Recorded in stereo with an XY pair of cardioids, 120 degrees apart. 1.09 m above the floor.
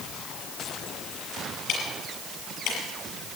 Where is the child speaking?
I don't hear a child speaking.